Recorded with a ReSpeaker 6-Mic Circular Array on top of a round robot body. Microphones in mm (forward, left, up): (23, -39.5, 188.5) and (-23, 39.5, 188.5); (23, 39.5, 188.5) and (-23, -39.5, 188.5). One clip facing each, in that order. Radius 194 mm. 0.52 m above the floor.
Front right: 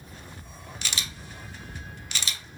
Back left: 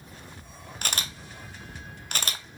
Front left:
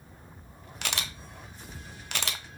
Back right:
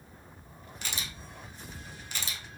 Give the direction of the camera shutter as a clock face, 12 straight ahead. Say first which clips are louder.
Back left 3 dB, front left 5 dB; 9 o'clock.